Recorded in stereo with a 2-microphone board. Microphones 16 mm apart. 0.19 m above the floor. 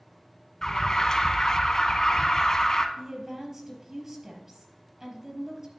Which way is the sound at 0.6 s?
35° left (ahead or behind).